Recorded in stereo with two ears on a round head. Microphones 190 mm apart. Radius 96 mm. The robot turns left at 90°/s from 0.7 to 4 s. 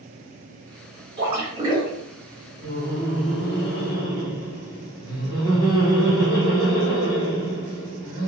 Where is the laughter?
5° left (ahead or behind), 1.2 m; by 8.3 s 20° left (ahead or behind), 1.2 m.